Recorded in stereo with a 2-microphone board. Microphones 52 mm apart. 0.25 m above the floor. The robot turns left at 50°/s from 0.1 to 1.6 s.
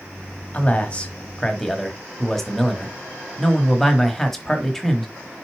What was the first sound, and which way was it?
A man speaking, 60° left.